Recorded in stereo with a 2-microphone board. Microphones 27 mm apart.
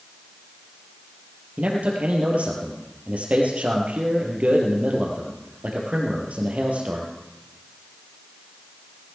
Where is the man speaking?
65° right (ahead or behind), 3.5 m.